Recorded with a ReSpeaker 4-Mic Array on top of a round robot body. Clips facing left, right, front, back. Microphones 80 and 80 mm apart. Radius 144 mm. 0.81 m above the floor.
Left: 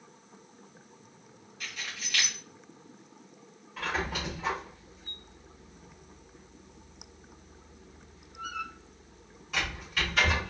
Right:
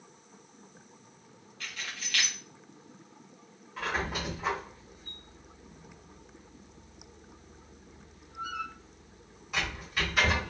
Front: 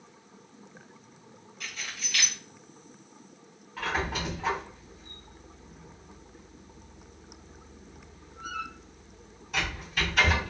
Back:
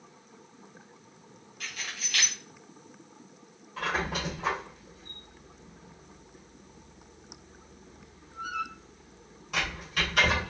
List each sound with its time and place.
1.6 s keys jangling: 165° left, 1.7 m
3.8 s a squeak: 170° right, 1.8 m